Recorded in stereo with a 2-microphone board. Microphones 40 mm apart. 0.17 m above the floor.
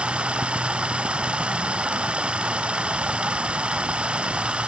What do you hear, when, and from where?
0.0 s running water: 30° right (ahead or behind)